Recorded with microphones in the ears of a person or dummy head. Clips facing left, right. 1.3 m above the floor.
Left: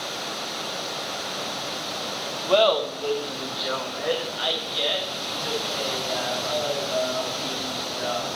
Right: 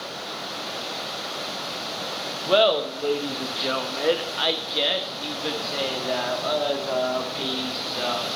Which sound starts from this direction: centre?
Laughter, at 2.5 s.